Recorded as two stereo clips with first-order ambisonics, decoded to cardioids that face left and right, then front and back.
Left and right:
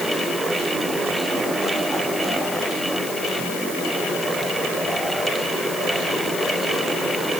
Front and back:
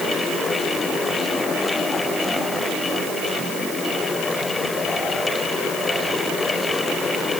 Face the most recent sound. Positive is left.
No sound to turn to.